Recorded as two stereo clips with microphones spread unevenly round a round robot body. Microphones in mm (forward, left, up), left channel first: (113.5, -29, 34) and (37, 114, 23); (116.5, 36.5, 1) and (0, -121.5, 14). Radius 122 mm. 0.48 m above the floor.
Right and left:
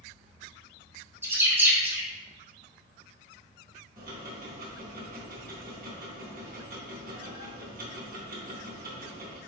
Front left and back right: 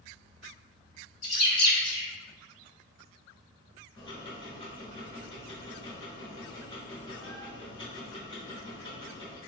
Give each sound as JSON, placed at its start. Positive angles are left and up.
{"t": 1.2, "sound": "a bird", "azimuth_deg": 55, "distance_m": 1.3}
{"t": 4.0, "sound": "ticking", "azimuth_deg": 120, "distance_m": 0.9}